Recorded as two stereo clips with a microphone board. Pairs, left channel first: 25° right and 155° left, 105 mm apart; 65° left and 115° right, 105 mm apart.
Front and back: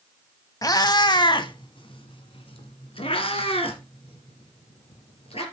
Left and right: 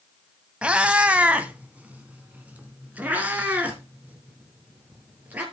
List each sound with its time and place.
0.6 s a cat meowing: 40° right, 0.9 m